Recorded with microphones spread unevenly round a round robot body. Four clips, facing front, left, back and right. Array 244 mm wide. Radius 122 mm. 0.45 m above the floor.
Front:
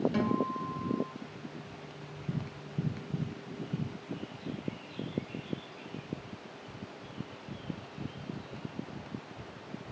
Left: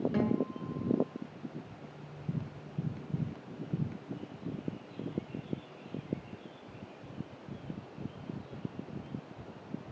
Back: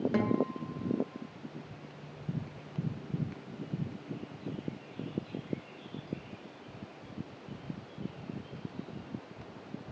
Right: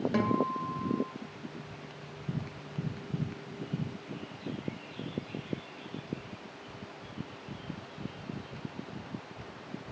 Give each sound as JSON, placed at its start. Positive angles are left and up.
{"t": 0.1, "sound": "a guitar", "azimuth_deg": -150, "distance_m": 1.6}